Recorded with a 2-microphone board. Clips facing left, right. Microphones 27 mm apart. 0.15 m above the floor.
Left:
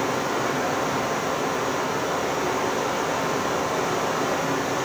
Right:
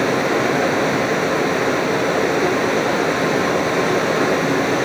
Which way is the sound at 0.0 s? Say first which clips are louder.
Right 7 dB; 65° right (ahead or behind).